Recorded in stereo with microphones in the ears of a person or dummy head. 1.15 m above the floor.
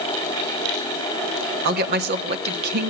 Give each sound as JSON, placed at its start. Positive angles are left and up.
{"t": 1.6, "sound": "a woman speaking", "side_deg": -50, "distance_m": 1.2}